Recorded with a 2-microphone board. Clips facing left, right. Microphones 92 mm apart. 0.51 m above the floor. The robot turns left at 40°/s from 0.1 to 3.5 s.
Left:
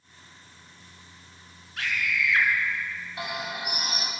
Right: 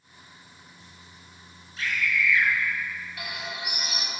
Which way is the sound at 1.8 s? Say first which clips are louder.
Right 1 dB; 65° left (ahead or behind).